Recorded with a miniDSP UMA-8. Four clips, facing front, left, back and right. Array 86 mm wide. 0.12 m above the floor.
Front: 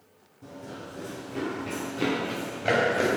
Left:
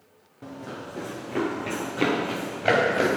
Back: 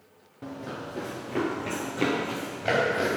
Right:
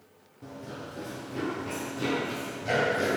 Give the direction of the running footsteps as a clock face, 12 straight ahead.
7 o'clock.